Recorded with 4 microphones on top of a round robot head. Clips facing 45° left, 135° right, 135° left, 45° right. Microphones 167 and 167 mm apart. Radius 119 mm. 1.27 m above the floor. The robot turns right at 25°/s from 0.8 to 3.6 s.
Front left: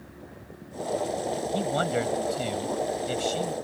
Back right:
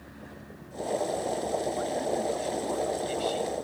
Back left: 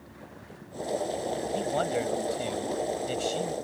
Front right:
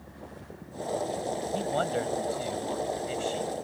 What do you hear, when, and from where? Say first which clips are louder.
1.5 s a man speaking: front left 3 dB, even; 45° left; by 3.5 s 95° left